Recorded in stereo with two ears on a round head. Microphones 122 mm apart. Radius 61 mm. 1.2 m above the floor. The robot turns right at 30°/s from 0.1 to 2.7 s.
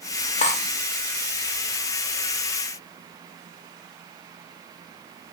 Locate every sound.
0.4 s cutlery clinking: 50° left (ahead or behind), 0.6 m